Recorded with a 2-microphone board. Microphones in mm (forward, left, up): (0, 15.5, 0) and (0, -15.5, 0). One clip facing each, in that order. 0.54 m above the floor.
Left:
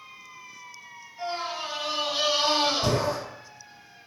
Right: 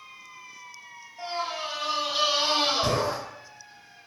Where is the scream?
15° left (ahead or behind), 2.0 m; by 3.2 s 20° right (ahead or behind), 1.2 m.